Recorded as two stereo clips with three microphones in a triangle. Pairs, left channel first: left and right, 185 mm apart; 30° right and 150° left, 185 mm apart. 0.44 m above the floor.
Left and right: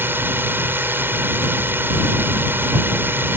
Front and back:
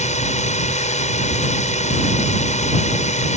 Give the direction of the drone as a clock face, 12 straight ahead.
1 o'clock.